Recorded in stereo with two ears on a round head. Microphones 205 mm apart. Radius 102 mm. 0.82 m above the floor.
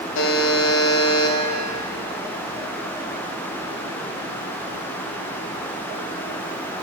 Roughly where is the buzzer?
Left.